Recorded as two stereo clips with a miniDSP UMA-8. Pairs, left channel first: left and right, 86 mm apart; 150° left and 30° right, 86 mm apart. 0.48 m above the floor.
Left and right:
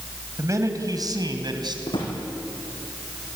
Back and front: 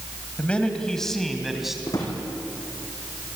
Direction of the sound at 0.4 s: 135° right.